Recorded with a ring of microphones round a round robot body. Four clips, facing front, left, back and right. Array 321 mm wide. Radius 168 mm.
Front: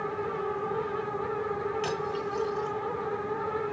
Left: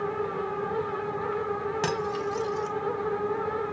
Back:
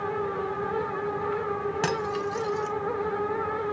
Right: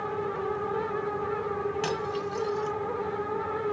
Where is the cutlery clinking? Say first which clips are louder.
Left 2 dB, back 3 dB; 160° left, 2 m.